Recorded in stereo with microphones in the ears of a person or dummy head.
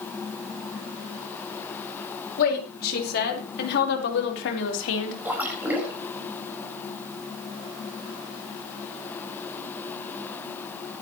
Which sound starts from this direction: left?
A woman speaking, at 2.4 s.